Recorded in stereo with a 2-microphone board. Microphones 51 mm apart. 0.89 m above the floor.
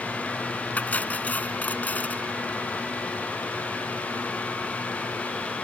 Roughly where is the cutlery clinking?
Left.